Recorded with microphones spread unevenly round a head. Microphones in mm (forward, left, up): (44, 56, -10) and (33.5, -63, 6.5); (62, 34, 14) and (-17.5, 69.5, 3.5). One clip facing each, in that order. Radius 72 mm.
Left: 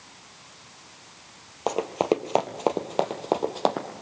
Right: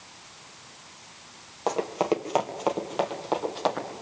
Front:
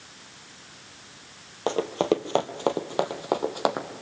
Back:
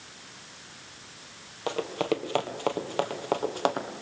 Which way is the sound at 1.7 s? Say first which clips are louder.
Left 1 dB, front 5 dB; 10° left.